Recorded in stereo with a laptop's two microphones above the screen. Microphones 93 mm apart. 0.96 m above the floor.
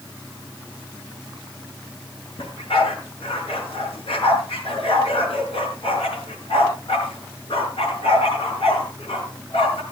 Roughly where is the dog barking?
Left.